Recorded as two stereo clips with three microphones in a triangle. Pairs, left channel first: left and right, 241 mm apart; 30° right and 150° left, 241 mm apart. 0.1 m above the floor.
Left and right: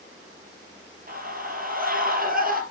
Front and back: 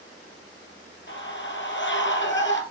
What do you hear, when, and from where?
1.1 s a scream: 45° right, 2.5 m